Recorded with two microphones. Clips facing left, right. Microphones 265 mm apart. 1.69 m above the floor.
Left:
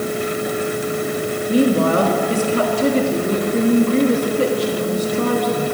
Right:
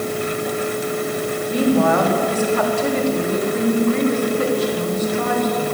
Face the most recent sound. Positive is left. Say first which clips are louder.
# left 1 dB
turn(degrees=35)  # may be behind; listen again after turning